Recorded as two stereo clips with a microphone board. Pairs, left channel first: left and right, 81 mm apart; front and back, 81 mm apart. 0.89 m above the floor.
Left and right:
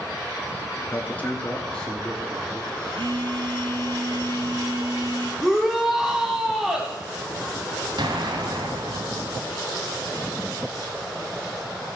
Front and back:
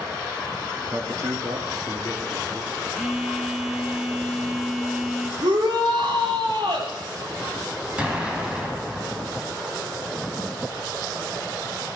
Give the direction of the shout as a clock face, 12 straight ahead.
6 o'clock.